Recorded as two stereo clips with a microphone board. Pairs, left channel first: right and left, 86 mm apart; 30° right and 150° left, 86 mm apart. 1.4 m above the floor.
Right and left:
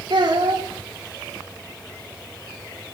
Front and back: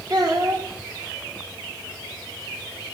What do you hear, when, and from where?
0.1 s a child speaking: 115° left, 3 m